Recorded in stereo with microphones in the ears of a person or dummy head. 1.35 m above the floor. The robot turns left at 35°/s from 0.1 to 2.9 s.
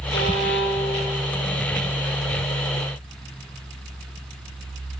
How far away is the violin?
About 2.5 m.